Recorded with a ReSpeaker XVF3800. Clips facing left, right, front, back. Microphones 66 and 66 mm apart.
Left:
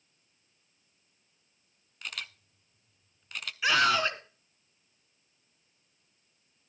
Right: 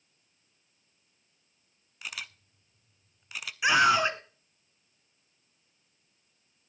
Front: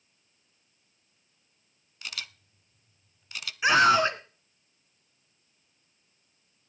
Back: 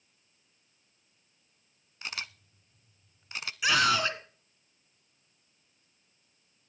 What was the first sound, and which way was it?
A camera shutter, 165° right.